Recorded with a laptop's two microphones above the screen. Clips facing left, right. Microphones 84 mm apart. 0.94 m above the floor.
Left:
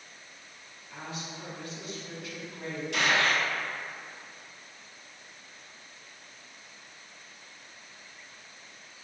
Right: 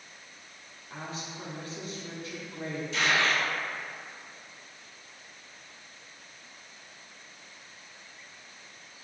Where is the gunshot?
75° left (ahead or behind), 0.7 m.